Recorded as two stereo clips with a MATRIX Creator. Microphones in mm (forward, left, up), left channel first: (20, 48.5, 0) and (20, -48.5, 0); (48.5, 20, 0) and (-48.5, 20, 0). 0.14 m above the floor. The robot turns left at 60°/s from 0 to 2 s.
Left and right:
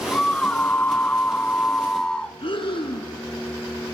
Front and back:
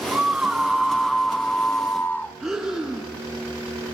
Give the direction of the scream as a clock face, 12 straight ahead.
7 o'clock.